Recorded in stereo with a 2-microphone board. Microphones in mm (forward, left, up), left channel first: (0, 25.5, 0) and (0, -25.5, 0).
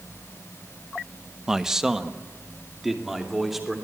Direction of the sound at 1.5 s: 10° right (ahead or behind).